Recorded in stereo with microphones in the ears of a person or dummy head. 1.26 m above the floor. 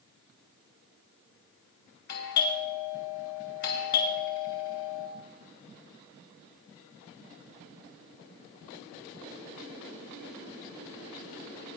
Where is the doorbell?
50° left (ahead or behind), 2.5 m.